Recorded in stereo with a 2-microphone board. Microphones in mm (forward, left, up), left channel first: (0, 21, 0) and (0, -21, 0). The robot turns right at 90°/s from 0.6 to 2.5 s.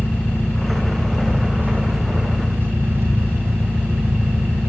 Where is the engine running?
125° left, 9.5 m; by 4.7 s 65° right, 9.5 m.